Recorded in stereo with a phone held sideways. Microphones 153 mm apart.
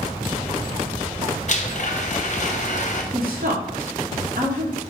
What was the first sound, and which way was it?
A blender, 50° left (ahead or behind).